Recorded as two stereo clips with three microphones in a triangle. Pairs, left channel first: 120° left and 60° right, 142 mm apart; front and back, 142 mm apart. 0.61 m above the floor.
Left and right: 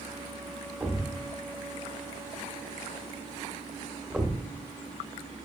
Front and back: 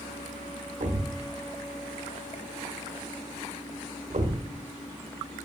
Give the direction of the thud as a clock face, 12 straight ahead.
5 o'clock.